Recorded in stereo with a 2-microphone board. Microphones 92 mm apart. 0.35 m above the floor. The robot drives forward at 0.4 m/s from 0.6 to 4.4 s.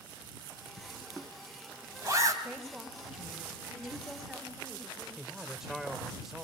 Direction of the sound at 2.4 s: 15° right (ahead or behind).